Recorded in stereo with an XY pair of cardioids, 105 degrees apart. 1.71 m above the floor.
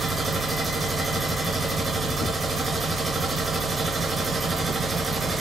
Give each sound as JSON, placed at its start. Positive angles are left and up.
{"t": 0.0, "sound": "a machine running", "azimuth_deg": -25, "distance_m": 0.8}